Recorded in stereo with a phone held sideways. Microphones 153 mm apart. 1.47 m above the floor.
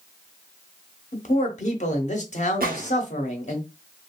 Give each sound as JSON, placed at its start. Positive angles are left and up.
{"t": 1.1, "sound": "a man speaking", "side_deg": 50, "distance_m": 0.9}
{"t": 2.6, "sound": "a gunshot", "side_deg": -70, "distance_m": 0.8}